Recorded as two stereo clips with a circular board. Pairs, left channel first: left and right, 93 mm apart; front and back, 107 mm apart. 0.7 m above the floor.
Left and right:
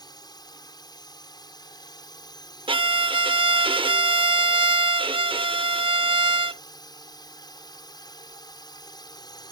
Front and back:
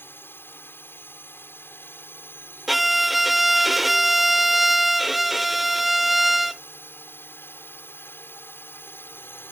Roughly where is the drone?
Ahead left.